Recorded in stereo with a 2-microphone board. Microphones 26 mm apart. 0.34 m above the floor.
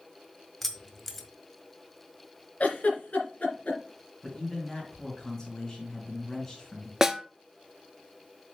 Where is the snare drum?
20° right (ahead or behind), 0.7 m.